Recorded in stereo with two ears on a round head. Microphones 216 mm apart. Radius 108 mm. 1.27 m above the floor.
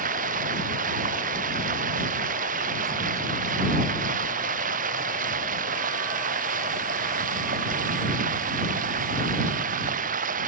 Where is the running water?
35° right (ahead or behind).